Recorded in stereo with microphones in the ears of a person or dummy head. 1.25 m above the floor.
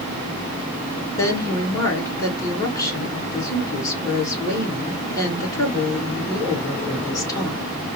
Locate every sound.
1.2 s a woman speaking: 20° left (ahead or behind), 1.7 m